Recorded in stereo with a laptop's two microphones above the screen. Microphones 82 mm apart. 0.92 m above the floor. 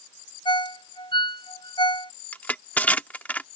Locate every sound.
0.5 s a ringtone: 85° left
2.3 s crushing: 20° left (ahead or behind)